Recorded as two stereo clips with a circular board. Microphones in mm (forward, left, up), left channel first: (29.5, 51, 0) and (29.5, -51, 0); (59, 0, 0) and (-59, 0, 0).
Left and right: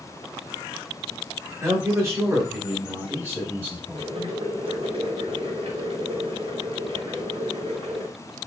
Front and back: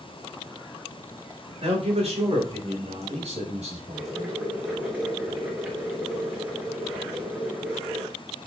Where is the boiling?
105° right, 3 m.